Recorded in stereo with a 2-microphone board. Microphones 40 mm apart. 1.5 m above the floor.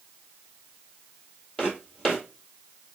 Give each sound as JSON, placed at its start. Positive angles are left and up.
{"t": 1.6, "sound": "footsteps", "side_deg": 20, "distance_m": 1.8}